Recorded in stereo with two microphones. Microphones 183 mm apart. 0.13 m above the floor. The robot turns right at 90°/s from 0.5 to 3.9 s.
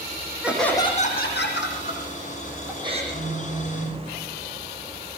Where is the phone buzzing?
80° right, 5.5 m; by 4.0 s 5° right, 5.5 m.